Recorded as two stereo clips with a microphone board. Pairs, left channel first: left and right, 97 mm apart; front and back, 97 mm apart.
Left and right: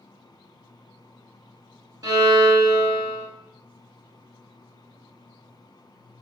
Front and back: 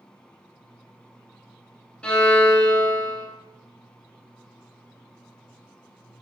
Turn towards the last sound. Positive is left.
turn(degrees=-70)